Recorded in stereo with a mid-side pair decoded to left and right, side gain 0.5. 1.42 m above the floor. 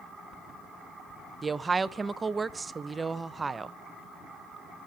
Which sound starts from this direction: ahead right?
A woman speaking, at 1.4 s.